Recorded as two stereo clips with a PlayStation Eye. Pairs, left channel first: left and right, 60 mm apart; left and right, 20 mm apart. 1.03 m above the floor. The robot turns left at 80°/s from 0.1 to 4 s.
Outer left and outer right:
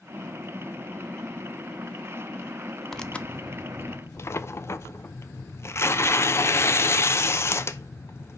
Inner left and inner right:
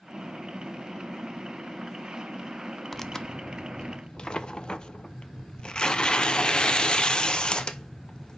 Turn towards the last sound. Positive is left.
turn(degrees=85)